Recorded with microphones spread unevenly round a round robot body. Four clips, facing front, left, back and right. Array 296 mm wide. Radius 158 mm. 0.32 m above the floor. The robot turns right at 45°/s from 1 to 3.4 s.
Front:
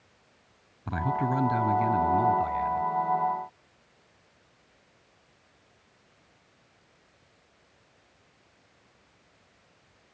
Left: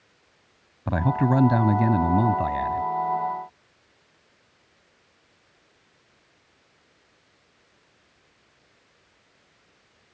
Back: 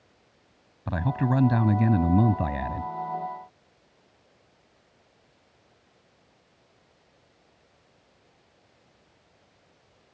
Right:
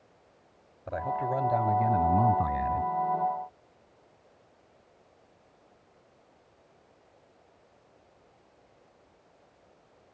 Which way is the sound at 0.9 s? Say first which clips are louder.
Left 7 dB, back 1 dB; 110° left.